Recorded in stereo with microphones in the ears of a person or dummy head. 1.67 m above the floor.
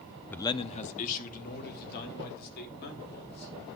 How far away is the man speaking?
About 0.6 m.